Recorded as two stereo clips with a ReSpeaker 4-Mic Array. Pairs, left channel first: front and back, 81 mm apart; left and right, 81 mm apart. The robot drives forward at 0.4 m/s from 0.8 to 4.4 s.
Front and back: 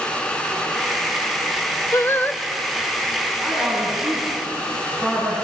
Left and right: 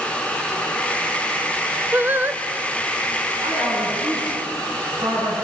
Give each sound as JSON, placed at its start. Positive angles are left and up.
{"t": 1.9, "sound": "singing", "azimuth_deg": -35, "distance_m": 0.6}
{"t": 3.4, "sound": "a woman speaking", "azimuth_deg": -85, "distance_m": 7.0}